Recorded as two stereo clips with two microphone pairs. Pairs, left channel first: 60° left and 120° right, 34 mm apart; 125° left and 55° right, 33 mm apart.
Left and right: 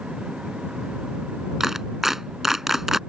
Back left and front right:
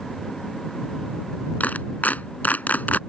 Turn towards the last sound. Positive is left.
turn(degrees=165)